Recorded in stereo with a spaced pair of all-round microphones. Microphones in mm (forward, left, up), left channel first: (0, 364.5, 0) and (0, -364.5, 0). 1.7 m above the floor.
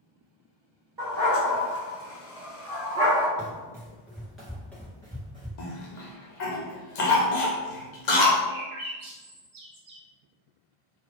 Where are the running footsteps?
5° right (ahead or behind), 1.8 m; by 5.5 s 5° left (ahead or behind), 1.7 m.